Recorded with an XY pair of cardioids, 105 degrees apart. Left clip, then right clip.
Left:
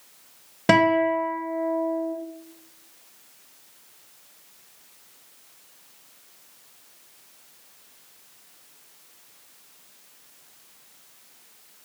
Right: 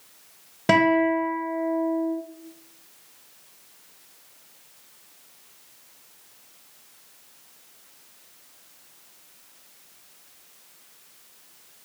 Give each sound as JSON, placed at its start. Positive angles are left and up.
{"t": 0.7, "sound": "a guitar", "azimuth_deg": 20, "distance_m": 0.7}